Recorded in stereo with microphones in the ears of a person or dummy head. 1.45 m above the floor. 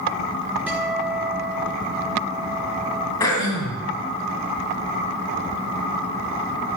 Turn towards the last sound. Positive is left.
turn(degrees=20)  # may be behind; listen again after turning